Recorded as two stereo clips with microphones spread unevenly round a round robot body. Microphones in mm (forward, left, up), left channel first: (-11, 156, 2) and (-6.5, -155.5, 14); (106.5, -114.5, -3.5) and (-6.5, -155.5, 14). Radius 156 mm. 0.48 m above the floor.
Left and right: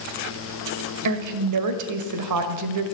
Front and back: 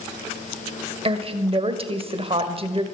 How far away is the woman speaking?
About 1.8 m.